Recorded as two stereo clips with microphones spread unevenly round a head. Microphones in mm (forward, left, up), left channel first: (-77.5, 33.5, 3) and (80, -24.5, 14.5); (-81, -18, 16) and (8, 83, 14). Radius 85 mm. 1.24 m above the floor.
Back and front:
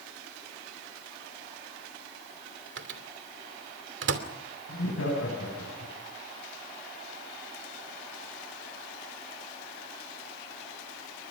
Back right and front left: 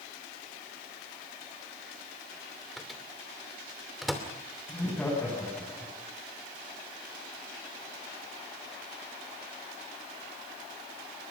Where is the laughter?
145° left, 9.5 m.